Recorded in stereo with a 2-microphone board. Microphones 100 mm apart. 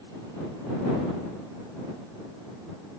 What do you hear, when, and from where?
Only background noise.